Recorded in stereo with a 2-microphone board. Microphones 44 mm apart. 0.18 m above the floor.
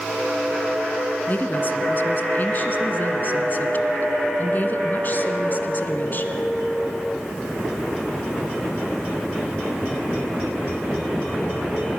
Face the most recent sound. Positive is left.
turn(degrees=45)  # may be behind; listen again after turning